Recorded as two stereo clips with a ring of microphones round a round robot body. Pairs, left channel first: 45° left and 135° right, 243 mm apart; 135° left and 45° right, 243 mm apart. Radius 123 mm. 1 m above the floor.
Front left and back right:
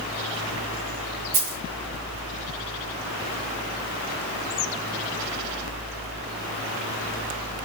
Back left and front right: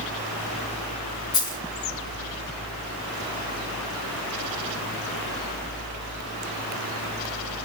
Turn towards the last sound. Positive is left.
turn(degrees=-155)